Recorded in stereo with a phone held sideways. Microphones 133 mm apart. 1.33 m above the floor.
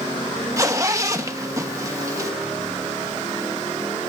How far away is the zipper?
About 1.1 m.